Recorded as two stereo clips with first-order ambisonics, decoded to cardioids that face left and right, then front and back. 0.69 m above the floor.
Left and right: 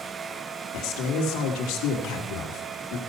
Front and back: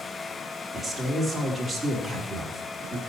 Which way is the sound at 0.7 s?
95° left.